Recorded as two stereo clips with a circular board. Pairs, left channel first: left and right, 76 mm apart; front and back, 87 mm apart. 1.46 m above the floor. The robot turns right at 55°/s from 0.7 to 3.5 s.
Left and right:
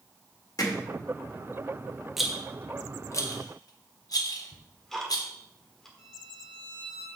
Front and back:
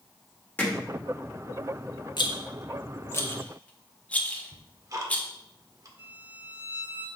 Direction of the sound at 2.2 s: 5° right.